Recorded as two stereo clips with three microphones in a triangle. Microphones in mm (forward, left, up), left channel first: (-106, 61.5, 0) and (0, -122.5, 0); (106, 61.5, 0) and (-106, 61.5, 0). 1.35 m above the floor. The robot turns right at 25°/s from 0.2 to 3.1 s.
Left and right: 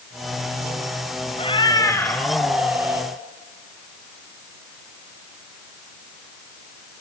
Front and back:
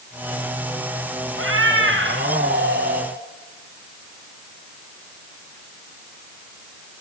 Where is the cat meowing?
175° right, 3.5 m; by 3.1 s 135° right, 3.5 m.